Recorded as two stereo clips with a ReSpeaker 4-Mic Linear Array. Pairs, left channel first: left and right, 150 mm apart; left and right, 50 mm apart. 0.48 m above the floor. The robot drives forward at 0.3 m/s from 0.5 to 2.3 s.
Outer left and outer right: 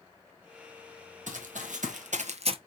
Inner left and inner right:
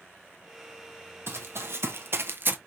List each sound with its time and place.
1.3 s running footsteps: 55° right (ahead or behind), 1.2 m; by 2.6 s 40° right (ahead or behind), 0.5 m